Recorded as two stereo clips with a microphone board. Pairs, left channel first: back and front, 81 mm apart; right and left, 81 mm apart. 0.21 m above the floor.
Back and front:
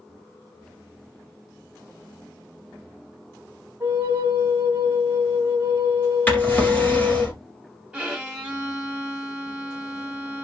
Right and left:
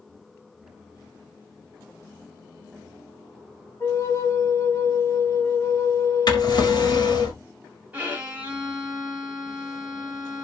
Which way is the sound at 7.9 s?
50° left.